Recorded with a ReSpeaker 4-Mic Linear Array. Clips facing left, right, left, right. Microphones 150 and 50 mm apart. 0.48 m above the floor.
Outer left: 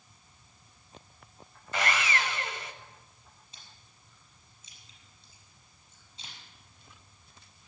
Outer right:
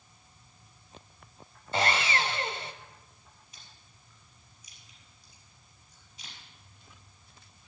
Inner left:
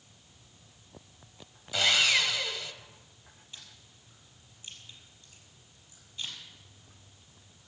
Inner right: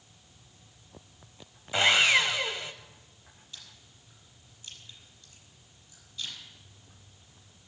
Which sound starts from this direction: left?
Chewing, at 3.5 s.